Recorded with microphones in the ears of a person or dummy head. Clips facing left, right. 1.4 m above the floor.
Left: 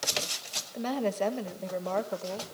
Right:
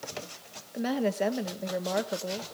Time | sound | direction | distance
0.7 | a woman speaking | 15° right (ahead or behind) | 1.4 m